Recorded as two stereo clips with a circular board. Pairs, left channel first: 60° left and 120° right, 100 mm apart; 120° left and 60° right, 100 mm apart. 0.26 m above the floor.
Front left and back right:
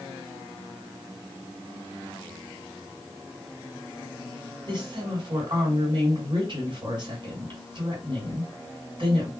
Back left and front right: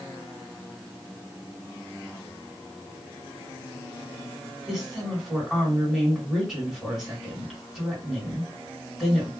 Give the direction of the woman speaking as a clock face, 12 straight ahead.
5 o'clock.